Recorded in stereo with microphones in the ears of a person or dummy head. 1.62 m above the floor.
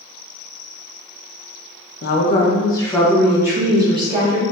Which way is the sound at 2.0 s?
60° left (ahead or behind).